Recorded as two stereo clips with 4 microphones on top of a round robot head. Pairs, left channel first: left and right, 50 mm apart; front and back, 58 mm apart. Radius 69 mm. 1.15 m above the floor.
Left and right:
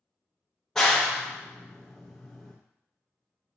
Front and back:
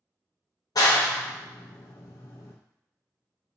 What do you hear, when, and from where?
0.8 s a clap: 5° left, 0.6 m